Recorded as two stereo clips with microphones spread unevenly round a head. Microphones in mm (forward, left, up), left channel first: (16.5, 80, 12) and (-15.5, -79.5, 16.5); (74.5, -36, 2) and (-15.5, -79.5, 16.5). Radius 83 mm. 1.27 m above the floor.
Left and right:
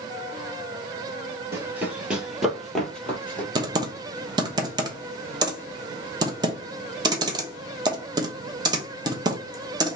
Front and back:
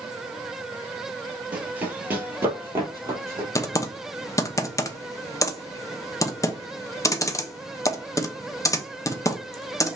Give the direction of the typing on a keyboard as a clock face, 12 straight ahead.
1 o'clock.